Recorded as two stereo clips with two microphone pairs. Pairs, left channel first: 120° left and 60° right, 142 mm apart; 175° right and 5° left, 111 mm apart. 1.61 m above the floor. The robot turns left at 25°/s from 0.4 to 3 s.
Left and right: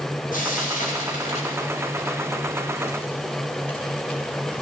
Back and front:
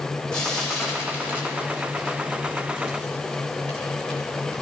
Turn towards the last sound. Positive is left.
turn(degrees=40)